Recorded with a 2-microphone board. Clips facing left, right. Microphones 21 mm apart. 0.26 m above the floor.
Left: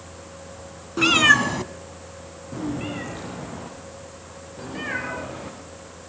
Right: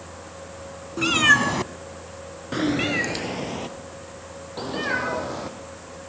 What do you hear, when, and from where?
1.0 s a cat meowing: 25° left (ahead or behind), 0.9 m; by 5.5 s 65° right (ahead or behind), 4 m